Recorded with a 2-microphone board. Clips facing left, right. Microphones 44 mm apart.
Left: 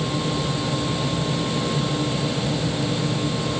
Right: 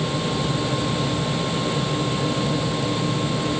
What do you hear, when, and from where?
Only background noise.